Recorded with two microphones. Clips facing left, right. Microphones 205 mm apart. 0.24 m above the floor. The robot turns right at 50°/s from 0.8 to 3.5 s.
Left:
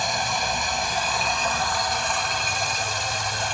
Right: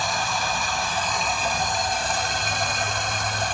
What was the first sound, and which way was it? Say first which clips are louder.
Running water: even; 160° left.